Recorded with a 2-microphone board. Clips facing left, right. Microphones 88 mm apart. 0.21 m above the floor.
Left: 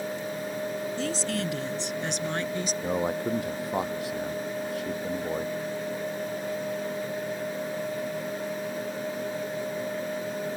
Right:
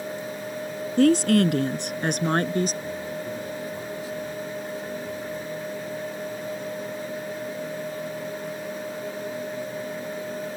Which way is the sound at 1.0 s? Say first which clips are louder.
Right 16 dB; 65° right (ahead or behind).